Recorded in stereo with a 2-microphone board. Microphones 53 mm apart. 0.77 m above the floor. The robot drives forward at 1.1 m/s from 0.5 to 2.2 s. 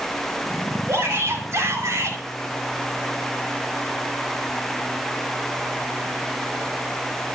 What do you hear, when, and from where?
0.9 s a shout: 55° right (ahead or behind), 2.5 m; by 2.2 s 70° right (ahead or behind), 2.5 m